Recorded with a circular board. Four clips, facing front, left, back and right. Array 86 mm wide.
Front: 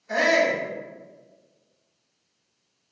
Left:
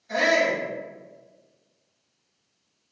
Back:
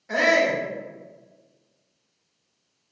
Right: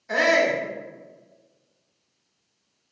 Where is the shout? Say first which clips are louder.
Right 2 dB, back 1 dB; 105° right, 1.1 m.